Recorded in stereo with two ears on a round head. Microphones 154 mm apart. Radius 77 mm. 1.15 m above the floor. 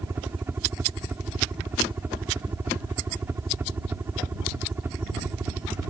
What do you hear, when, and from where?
0.0 s a helicopter: 15° right (ahead or behind)